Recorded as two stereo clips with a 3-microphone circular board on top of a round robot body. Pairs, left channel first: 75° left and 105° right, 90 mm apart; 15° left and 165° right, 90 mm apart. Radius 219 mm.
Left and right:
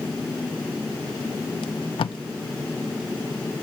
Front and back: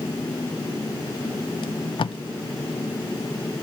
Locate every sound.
1.6 s tape being pulled: 45° left, 0.5 m